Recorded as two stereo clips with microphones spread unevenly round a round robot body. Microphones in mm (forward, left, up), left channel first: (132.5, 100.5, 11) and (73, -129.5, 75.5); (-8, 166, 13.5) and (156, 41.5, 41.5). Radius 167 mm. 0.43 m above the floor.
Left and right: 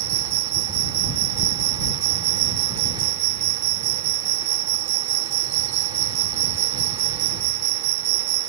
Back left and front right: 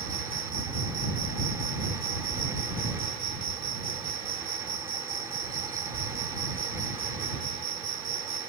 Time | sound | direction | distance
0.0 | an insect | 130° right | ?